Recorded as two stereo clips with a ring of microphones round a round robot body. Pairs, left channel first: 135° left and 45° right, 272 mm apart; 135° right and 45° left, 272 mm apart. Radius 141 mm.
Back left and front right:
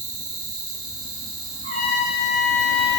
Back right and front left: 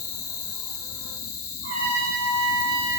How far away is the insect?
About 0.8 m.